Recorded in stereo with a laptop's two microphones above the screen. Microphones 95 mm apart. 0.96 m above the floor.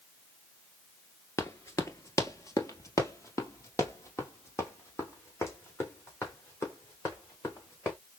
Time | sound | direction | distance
1.4 | running footsteps | 30° left (ahead or behind) | 1.0 m